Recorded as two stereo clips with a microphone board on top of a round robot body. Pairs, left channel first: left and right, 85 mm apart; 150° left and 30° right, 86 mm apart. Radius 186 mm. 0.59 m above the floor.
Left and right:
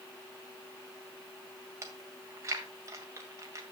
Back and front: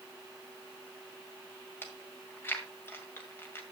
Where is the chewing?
145° right, 2.0 m.